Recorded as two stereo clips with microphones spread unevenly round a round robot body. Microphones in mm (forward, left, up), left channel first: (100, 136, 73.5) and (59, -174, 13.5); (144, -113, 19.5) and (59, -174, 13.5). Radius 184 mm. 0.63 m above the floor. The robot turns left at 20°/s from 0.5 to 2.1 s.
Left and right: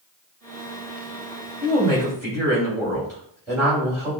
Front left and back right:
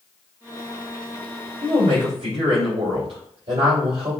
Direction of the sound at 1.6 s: 165° right.